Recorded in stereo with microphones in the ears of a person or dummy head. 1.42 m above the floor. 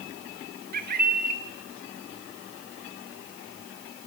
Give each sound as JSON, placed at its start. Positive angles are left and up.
{"t": 0.7, "sound": "a bird", "side_deg": -50, "distance_m": 1.5}